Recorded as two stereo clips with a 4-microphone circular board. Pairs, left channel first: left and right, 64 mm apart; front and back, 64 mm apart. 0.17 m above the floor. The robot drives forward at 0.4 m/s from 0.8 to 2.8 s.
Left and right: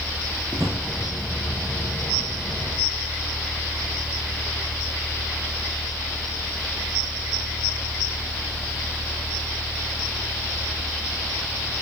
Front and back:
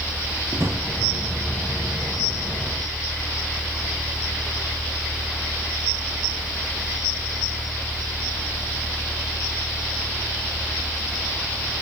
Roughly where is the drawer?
Behind right.